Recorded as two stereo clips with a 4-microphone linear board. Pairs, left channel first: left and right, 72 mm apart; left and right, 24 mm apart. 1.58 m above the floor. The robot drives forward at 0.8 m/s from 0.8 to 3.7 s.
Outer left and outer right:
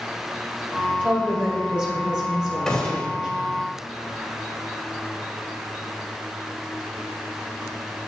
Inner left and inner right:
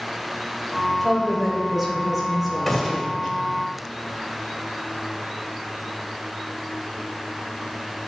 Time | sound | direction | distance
1.0 | a woman speaking | 20° right (ahead or behind) | 2.5 m
2.7 | a gunshot | 10° left (ahead or behind) | 1.7 m